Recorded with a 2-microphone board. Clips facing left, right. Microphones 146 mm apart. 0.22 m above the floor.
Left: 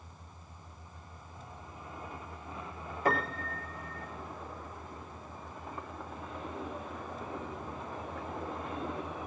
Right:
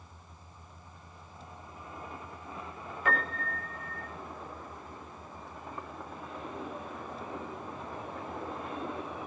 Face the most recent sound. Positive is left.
turn(degrees=35)  # may be behind; listen again after turning